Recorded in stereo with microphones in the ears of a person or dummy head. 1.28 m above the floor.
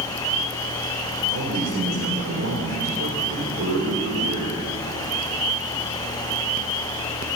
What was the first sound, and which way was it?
A man speaking, 75° right (ahead or behind).